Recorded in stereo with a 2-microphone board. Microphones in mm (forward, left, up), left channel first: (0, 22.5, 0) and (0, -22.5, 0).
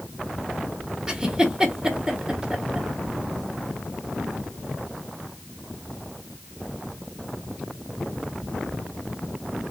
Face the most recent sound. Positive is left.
turn(degrees=-15)  # may be behind; listen again after turning